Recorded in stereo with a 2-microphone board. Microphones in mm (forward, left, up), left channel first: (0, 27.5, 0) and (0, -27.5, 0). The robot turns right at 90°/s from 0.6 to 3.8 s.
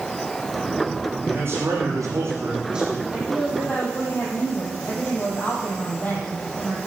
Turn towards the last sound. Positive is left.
turn(degrees=35)